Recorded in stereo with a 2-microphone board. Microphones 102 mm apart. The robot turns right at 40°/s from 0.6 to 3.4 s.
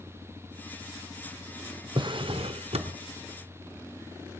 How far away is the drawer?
About 0.6 m.